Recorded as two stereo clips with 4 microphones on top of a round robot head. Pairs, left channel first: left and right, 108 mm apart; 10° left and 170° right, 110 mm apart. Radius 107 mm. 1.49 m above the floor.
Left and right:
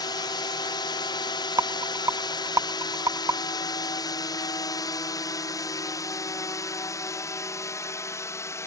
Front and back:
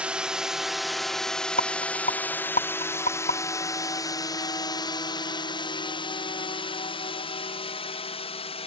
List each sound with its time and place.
0.0 s a drone: 110° left; by 8.7 s 30° left
1.6 s a rattle: 30° right